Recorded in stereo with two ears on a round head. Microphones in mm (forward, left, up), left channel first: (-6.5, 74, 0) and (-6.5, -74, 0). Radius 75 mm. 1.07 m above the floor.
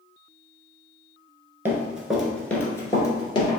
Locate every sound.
1.6 s running footsteps: 15° right (ahead or behind), 1.0 m; by 3.6 s 30° left (ahead or behind), 1.3 m